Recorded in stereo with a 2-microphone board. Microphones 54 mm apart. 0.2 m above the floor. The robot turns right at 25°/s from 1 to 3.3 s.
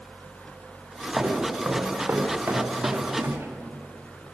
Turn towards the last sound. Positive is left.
turn(degrees=-40)  # may be behind; listen again after turning